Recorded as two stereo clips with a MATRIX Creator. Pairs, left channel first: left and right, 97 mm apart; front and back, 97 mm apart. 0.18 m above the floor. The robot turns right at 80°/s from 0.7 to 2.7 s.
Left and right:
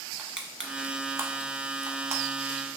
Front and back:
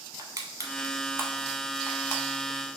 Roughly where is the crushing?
Behind.